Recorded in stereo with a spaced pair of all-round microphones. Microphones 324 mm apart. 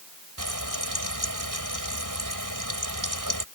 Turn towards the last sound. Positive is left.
turn(degrees=-75)  # may be behind; listen again after turning